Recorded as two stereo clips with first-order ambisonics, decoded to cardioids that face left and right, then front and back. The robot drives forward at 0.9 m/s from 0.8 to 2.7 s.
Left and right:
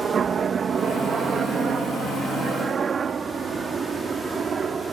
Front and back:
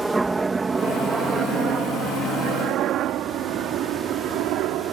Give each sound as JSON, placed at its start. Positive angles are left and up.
{"t": 0.0, "sound": "a helicopter", "azimuth_deg": -110}